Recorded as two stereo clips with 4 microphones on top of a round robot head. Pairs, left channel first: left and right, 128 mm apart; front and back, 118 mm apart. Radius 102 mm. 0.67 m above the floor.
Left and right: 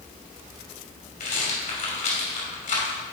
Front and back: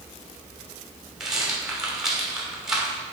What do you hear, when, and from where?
1.2 s a rattle: 90° left, 2.5 m